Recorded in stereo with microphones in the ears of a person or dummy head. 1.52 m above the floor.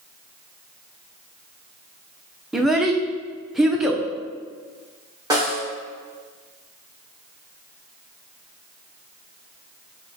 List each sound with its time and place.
2.5 s a child speaking: 5° right (ahead or behind), 0.6 m
5.3 s a snare drum: 20° right (ahead or behind), 1.0 m